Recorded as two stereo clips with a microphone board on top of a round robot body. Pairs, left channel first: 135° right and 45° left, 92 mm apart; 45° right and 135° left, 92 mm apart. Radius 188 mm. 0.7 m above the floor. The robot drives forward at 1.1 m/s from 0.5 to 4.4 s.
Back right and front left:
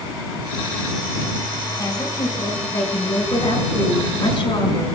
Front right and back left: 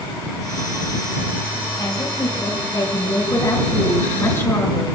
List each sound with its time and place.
1.8 s a woman speaking: 85° right, 7 m; by 4.8 s 110° right, 7.5 m